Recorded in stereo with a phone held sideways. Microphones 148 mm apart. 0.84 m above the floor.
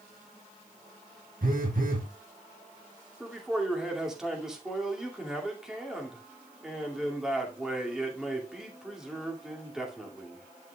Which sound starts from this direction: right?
A phone buzzing, at 1.4 s.